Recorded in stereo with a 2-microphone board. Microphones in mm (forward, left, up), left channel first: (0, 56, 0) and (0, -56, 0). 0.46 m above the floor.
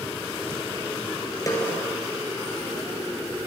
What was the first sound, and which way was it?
A snare drum, 30° left (ahead or behind).